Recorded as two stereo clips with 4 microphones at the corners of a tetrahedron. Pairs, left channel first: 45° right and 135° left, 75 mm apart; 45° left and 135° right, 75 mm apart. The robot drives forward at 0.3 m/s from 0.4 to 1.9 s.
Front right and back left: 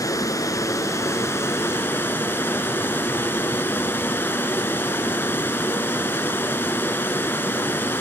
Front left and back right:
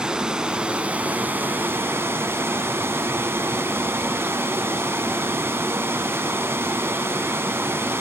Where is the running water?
60° right, 1.1 m; by 8.0 s 95° right, 1.0 m.